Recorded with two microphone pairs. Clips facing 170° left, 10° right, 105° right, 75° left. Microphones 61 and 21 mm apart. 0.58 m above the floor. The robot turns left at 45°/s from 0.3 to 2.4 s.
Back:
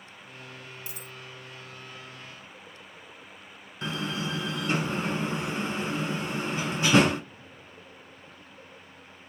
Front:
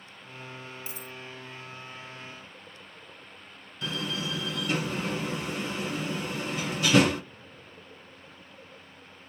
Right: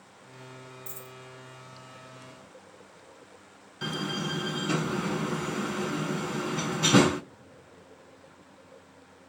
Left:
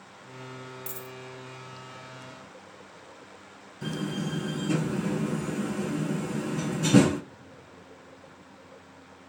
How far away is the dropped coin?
About 1.4 m.